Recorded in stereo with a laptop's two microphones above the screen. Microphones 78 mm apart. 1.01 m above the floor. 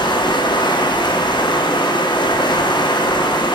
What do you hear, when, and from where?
0.0 s running water: 75° left (ahead or behind), 1.1 m